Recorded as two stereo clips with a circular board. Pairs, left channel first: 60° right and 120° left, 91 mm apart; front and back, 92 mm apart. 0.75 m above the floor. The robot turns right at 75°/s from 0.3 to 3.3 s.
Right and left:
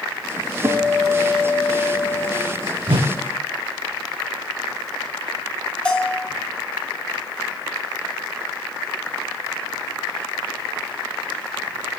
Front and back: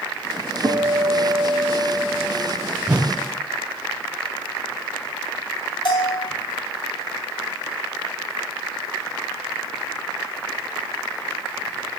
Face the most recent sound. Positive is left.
turn(degrees=15)